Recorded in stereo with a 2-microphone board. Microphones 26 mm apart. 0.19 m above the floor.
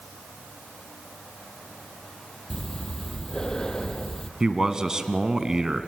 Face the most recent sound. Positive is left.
turn(degrees=-20)  # may be behind; listen again after turning